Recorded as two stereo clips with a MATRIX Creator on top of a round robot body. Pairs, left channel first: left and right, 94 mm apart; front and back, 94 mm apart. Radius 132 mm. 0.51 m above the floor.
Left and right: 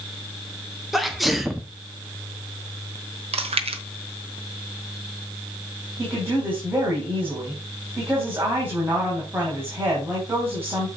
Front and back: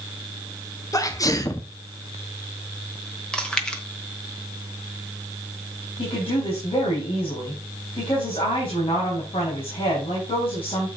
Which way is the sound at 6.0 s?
20° right.